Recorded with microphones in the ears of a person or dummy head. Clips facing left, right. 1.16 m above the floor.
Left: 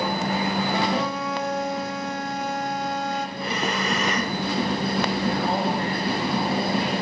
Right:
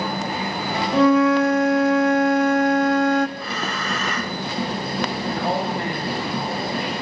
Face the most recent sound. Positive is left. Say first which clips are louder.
# even
turn(degrees=-60)  # may be behind; listen again after turning